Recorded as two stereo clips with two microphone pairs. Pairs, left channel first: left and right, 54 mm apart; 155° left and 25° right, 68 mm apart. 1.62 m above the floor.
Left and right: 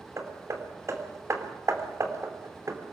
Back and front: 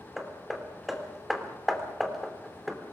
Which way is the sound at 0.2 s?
115° right.